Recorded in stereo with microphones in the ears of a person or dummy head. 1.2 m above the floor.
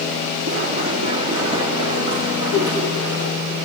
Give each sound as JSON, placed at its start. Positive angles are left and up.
{"t": 0.5, "sound": "running footsteps", "side_deg": -35, "distance_m": 3.5}
{"t": 2.5, "sound": "a whoosh", "side_deg": 75, "distance_m": 8.5}